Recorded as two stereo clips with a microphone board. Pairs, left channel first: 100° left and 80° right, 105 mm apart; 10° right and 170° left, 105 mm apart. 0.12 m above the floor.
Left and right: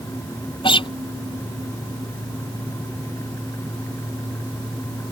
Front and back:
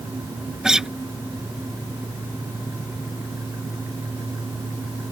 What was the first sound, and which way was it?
A guitar, 85° left.